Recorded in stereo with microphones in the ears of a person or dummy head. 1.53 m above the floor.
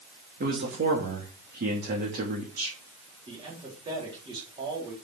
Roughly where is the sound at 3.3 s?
Right.